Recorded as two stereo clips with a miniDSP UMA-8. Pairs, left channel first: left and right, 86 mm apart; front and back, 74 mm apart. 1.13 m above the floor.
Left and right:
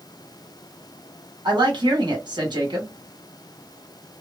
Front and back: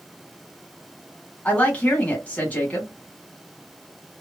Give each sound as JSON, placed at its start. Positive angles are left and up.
{"t": 1.4, "sound": "a woman speaking", "azimuth_deg": -70, "distance_m": 1.5}